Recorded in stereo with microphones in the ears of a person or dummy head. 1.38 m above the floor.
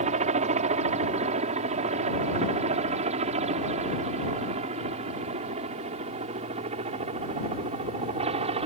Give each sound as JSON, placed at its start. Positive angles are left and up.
{"t": 0.0, "sound": "a helicopter", "side_deg": -35}